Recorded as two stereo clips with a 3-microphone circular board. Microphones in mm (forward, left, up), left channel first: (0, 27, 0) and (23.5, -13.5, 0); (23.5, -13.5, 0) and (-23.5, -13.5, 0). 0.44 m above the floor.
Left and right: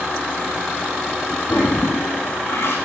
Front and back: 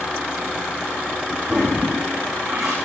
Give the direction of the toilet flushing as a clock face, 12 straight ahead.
9 o'clock.